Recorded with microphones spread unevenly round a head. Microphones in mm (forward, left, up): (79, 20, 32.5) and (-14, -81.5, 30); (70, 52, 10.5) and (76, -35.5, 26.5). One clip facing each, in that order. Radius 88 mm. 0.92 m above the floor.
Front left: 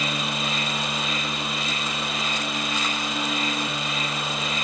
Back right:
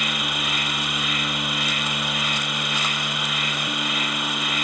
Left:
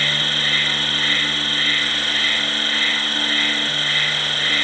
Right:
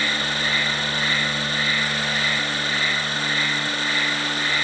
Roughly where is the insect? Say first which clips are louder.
Front left 1 dB, even; ahead.